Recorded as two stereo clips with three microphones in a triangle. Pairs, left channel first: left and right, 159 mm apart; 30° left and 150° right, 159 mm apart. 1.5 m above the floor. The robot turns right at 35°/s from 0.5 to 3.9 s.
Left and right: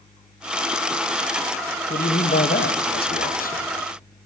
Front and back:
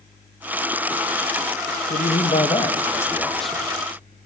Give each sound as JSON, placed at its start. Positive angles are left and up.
{"t": 1.9, "sound": "a man speaking", "azimuth_deg": 65, "distance_m": 1.0}